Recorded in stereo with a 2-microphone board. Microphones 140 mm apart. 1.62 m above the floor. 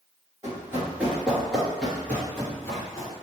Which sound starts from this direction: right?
Running footsteps, at 0.4 s.